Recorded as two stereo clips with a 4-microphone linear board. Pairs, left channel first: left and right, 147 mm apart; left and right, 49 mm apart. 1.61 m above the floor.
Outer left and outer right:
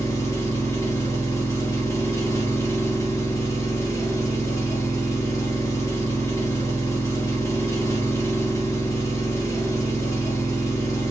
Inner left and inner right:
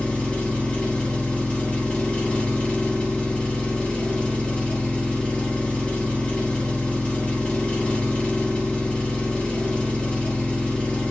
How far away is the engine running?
About 0.9 m.